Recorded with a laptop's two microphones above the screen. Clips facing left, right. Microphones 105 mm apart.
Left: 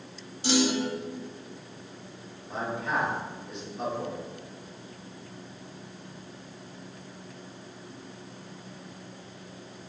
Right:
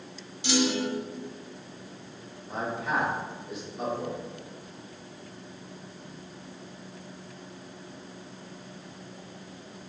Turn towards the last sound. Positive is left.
turn(degrees=-5)  # may be behind; listen again after turning